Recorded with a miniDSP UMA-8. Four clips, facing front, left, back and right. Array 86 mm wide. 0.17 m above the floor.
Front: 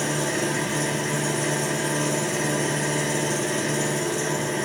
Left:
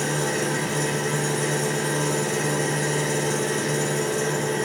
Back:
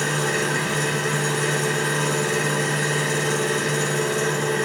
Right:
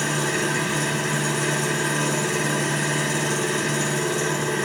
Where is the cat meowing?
I don't hear a cat meowing.